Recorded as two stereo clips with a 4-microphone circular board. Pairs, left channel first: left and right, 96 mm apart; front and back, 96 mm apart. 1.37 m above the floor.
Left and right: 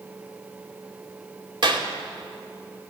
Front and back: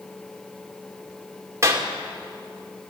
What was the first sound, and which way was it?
A clap, 120° right.